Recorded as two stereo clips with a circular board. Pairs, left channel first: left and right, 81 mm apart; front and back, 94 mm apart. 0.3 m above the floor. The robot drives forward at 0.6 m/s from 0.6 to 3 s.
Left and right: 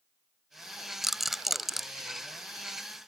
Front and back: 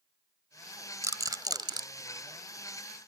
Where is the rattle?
175° right.